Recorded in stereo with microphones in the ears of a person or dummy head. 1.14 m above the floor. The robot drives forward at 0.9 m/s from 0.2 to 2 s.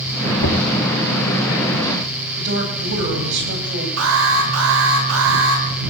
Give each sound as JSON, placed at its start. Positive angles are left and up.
{"t": 0.4, "sound": "knocking", "side_deg": 80, "distance_m": 2.5}
{"t": 2.4, "sound": "a woman speaking", "side_deg": -65, "distance_m": 8.5}
{"t": 4.0, "sound": "an alarm", "side_deg": -80, "distance_m": 7.5}